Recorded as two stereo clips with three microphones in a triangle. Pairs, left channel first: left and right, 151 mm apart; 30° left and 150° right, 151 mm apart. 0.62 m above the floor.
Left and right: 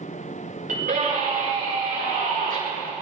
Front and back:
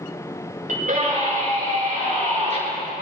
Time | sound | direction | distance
0.7 | a scream | 120° right | 9.5 m